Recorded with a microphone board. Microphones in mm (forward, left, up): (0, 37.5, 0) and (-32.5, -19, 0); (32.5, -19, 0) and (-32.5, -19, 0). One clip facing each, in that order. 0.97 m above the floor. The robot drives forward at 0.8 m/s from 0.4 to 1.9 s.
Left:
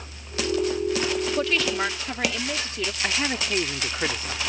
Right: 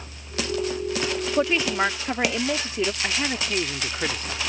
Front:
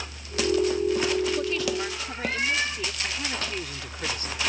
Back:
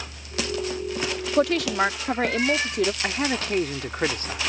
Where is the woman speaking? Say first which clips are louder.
Right 2 dB, back 5 dB; 170° left.